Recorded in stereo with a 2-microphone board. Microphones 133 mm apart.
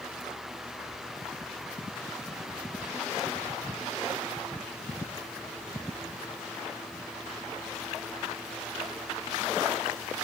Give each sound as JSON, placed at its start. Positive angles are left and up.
{"t": 0.9, "sound": "whispering", "side_deg": 10, "distance_m": 1.3}